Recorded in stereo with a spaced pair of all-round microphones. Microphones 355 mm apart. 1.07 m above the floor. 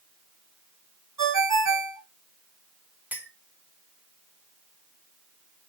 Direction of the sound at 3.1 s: 5° right (ahead or behind).